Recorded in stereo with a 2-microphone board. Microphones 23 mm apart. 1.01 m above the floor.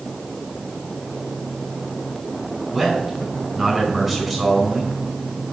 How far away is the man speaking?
About 5 m.